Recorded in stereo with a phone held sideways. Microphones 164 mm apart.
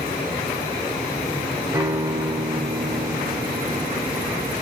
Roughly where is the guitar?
Right.